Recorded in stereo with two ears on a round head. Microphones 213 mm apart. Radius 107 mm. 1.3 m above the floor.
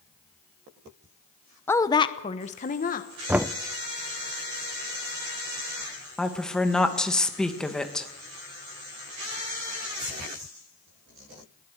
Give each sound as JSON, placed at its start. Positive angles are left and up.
{"t": 1.7, "sound": "a woman speaking", "side_deg": 10, "distance_m": 0.8}
{"t": 3.3, "sound": "knocking", "side_deg": -5, "distance_m": 0.5}
{"t": 6.2, "sound": "a woman speaking", "side_deg": 5, "distance_m": 1.7}